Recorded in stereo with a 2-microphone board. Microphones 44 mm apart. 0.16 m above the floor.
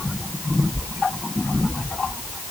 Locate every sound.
Only background noise.